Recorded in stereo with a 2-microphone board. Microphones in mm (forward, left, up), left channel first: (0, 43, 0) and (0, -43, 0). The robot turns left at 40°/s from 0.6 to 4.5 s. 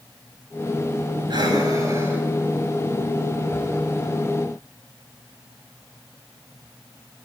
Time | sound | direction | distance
1.3 | breathing | 60° right (ahead or behind) | 6.5 m